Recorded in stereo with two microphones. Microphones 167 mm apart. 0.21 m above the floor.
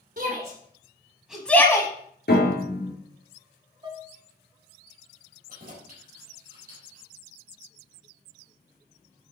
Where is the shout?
50° right (ahead or behind), 1.8 m; by 1.9 s 25° left (ahead or behind), 1.5 m.